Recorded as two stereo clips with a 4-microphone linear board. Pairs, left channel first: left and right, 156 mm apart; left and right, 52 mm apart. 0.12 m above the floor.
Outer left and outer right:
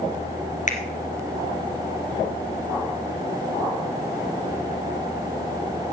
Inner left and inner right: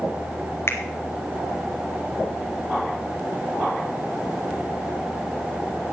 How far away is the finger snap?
About 2 m.